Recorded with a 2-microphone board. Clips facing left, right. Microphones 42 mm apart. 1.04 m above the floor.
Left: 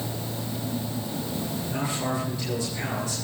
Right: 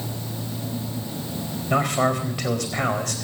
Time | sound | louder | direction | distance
1.7 | a man speaking | right 10 dB | 85° right | 4 m